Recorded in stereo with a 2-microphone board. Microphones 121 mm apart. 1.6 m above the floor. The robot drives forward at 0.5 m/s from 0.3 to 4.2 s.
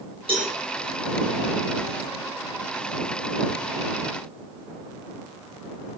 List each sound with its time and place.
0.3 s a cowbell: 45° right (ahead or behind), 5.5 m